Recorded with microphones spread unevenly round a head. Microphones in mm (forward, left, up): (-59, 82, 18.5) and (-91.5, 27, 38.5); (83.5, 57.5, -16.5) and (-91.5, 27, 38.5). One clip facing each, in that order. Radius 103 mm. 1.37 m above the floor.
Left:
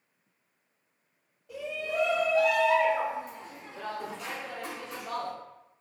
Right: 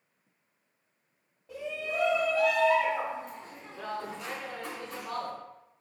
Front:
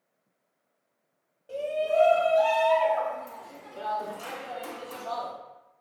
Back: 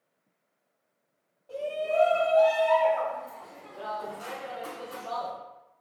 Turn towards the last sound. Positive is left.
turn(degrees=5)